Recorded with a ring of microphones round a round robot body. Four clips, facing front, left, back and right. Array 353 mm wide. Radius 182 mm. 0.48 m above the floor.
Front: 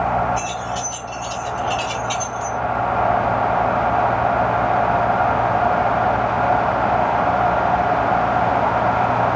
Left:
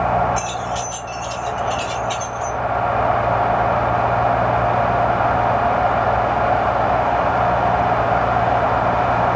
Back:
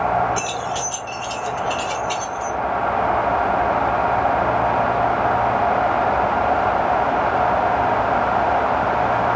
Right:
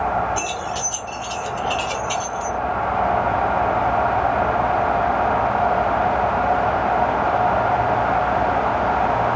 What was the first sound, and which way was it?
Keys jangling, 155° right.